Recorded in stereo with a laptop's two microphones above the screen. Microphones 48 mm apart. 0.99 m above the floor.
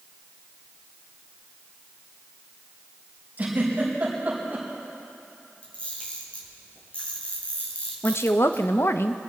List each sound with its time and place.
3.4 s a giggle: 35° right (ahead or behind), 4.5 m
5.6 s a camera shutter: 30° left (ahead or behind), 5 m
8.0 s a woman speaking: 55° left (ahead or behind), 0.7 m